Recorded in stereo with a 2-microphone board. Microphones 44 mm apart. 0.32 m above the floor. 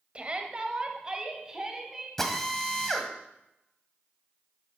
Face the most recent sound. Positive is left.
turn(degrees=10)  # may be behind; listen again after turning